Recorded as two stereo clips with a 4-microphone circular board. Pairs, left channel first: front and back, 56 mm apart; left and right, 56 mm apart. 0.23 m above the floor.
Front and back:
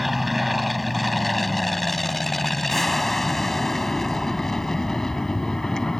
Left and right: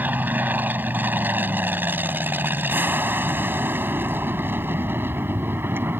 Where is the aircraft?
95° right; by 6.0 s 75° right.